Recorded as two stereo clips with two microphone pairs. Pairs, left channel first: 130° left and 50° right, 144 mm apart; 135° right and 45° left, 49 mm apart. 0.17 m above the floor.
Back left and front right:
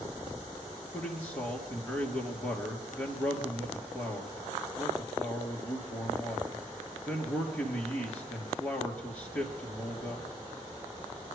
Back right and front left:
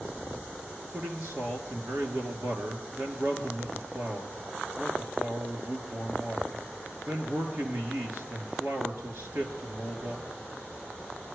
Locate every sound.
0.9 s a man speaking: 55° left, 3 m